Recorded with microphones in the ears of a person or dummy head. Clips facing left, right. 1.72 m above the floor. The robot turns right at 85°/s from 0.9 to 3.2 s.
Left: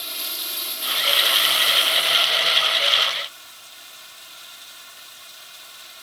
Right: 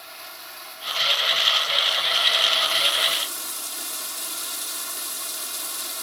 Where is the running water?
40° left; by 6.0 s 120° right.